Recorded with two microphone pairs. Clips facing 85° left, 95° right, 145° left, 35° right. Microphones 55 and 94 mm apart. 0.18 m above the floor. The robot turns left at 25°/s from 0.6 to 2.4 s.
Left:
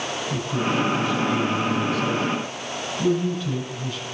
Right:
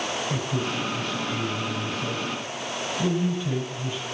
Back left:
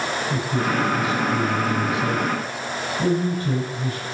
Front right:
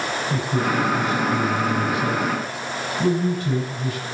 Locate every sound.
0.3 s a man speaking: 125° right, 7 m; by 4.0 s 170° right, 7 m